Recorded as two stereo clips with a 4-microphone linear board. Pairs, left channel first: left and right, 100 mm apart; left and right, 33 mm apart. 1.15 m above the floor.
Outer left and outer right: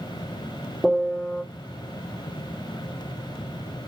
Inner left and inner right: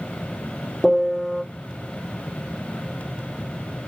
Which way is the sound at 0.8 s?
10° right (ahead or behind).